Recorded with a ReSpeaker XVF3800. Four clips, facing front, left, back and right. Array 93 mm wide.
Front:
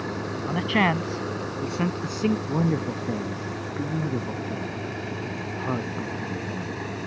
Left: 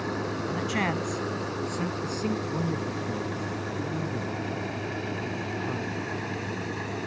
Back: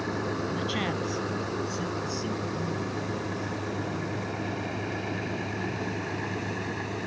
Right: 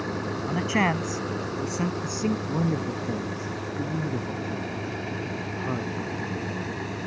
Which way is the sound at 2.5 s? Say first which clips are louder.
Right 3 dB, front 6 dB; 20° right.